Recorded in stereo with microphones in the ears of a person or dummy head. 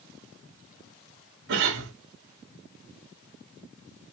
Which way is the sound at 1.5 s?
70° right (ahead or behind).